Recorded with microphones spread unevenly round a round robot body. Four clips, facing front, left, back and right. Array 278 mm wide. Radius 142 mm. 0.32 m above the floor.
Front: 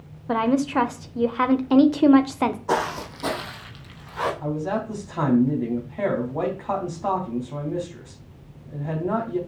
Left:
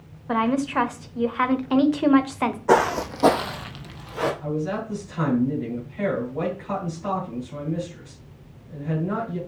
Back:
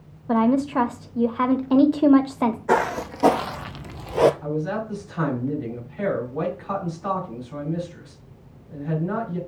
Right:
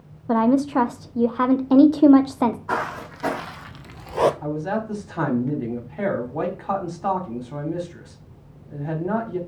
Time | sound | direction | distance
0.3 | a woman speaking | 100° right | 0.9 m
2.7 | footsteps | 100° left | 1.2 m
4.4 | a man speaking | 55° right | 3 m